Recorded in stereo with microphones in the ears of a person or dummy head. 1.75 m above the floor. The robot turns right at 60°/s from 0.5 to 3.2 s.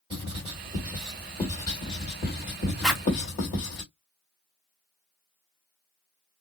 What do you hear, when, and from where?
0.1 s writing: 30° right (ahead or behind), 2 m; by 3.8 s 45° left (ahead or behind), 2 m
2.8 s a zipper: 5° left (ahead or behind), 0.6 m; by 3.0 s 5° right (ahead or behind), 0.6 m